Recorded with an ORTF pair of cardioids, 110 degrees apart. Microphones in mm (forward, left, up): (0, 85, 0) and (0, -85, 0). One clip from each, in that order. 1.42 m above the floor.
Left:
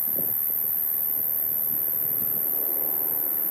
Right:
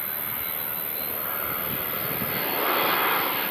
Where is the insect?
25° left, 2.5 m.